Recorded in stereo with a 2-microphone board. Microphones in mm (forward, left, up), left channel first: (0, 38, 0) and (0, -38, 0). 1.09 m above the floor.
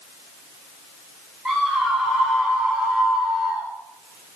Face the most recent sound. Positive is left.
turn(degrees=-10)  # may be behind; listen again after turning